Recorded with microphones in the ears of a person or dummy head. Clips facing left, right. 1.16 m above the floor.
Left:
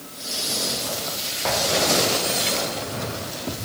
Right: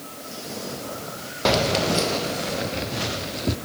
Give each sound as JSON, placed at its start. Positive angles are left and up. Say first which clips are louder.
{"t": 1.4, "sound": "keys jangling", "louder": "right 2 dB", "side_deg": -50, "distance_m": 0.6}